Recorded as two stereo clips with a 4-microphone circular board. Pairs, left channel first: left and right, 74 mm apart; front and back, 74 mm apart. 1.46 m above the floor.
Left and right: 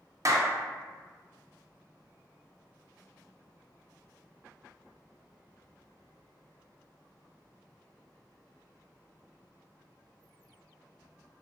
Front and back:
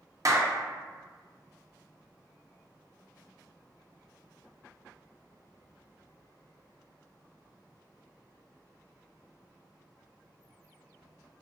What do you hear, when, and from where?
0.2 s a clap: 135° right, 0.7 m